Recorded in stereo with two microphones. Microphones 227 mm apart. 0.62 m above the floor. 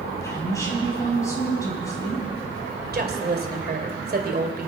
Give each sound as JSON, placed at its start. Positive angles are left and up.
{"t": 0.2, "sound": "a woman speaking", "side_deg": 15, "distance_m": 5.0}
{"t": 2.9, "sound": "a woman speaking", "side_deg": -45, "distance_m": 2.5}